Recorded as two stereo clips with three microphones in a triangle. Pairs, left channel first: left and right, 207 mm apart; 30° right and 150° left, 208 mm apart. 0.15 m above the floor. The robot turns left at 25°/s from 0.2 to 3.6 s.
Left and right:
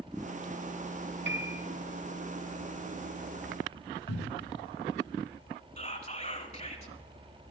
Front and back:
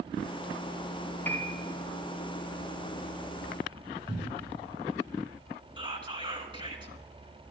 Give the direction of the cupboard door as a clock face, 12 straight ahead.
9 o'clock.